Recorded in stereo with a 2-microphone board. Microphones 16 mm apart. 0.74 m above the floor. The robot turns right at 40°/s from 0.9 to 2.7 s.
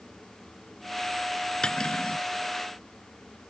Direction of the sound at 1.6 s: 55° left (ahead or behind).